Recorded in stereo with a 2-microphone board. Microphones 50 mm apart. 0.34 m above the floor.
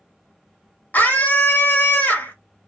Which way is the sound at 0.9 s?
35° left (ahead or behind).